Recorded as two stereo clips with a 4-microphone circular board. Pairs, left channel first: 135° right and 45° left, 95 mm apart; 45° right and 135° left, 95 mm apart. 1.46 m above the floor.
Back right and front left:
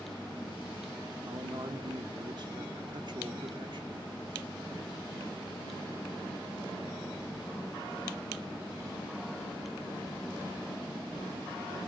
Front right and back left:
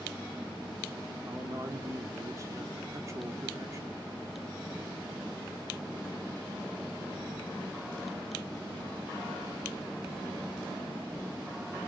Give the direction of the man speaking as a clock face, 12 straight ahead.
9 o'clock.